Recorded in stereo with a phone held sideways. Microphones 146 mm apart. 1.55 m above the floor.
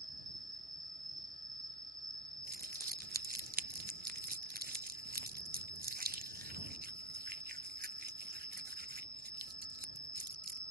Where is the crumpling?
75° right (ahead or behind).